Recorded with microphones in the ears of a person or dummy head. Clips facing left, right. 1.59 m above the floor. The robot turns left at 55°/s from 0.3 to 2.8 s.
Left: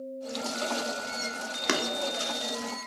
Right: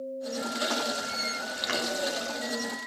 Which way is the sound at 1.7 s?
60° left (ahead or behind).